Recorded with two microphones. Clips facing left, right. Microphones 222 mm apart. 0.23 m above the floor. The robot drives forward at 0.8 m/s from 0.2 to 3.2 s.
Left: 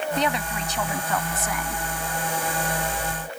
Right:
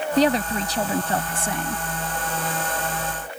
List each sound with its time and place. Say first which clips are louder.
0.2 s a woman speaking: right 7 dB; 35° right (ahead or behind); by 1.8 s 25° right (ahead or behind)